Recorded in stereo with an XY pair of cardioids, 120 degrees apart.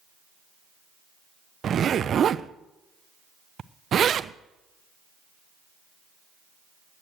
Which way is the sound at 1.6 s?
45° right.